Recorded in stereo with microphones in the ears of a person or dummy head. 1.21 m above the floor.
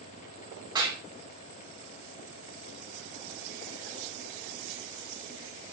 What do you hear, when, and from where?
0.8 s a clap: 20° right (ahead or behind), 2.5 m